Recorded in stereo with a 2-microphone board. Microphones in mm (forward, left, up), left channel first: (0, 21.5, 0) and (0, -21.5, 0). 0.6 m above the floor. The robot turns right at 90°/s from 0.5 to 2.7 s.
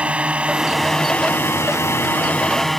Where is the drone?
30° right (ahead or behind); by 2.8 s 5° left (ahead or behind).